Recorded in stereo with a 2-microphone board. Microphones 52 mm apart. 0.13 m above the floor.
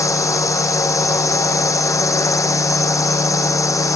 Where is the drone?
75° left (ahead or behind).